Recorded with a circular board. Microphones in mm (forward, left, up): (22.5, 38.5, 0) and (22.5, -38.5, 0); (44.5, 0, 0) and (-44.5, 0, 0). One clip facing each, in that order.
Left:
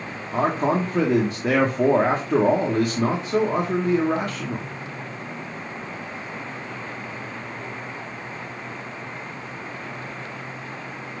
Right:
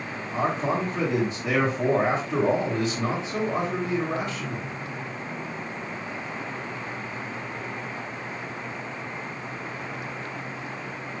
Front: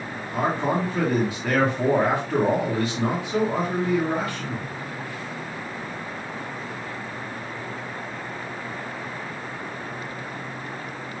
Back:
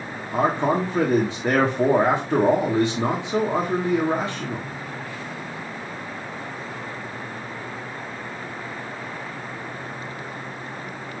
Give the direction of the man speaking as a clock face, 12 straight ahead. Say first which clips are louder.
Left 4 dB, back 3 dB; 8 o'clock.